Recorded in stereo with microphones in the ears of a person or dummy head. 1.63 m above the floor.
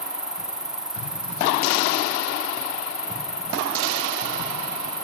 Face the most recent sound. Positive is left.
turn(degrees=0)  # may be behind; listen again after turning